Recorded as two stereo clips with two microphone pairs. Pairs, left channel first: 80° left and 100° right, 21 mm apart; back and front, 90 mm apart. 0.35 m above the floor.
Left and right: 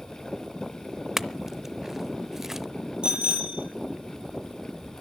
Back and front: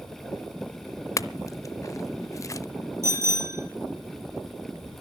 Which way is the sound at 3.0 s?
60° right.